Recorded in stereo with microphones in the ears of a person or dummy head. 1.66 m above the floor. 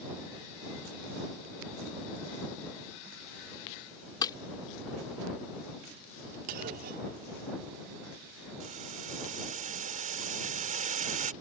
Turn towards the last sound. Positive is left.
turn(degrees=-45)  # may be behind; listen again after turning